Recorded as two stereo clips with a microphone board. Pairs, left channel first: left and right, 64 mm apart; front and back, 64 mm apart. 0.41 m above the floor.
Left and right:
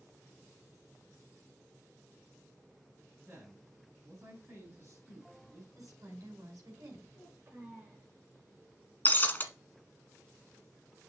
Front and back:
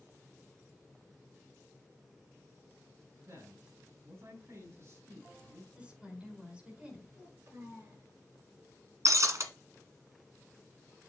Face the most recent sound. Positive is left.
turn(degrees=150)